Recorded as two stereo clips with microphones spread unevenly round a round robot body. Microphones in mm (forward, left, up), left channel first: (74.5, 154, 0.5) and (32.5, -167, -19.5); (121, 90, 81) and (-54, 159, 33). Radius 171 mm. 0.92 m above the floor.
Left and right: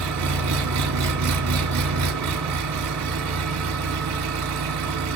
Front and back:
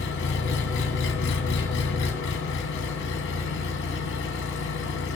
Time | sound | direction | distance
0.0 | an engine running | 60° right | 1.7 m